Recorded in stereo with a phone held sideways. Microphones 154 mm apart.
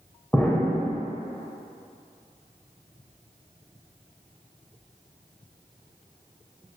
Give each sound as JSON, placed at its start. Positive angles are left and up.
{"t": 0.3, "sound": "an explosion", "side_deg": 10, "distance_m": 1.1}